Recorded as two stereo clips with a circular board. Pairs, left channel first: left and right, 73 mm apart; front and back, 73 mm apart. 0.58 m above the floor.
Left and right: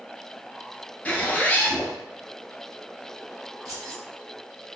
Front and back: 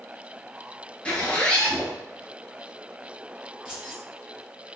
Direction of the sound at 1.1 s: 55° left.